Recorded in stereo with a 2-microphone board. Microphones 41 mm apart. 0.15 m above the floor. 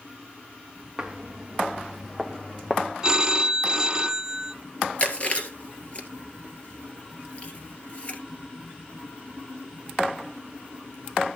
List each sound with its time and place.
1.0 s footsteps: 15° right (ahead or behind), 1.7 m; by 2.9 s 20° left (ahead or behind), 1.3 m
3.0 s a phone ringing: 20° right (ahead or behind), 0.7 m
5.0 s chewing: 35° left (ahead or behind), 1.9 m